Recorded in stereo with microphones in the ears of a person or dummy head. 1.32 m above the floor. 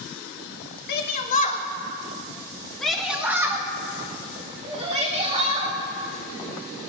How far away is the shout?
About 1.2 m.